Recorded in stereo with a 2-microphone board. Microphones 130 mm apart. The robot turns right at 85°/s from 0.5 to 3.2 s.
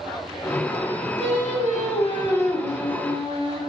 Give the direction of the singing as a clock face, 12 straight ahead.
10 o'clock.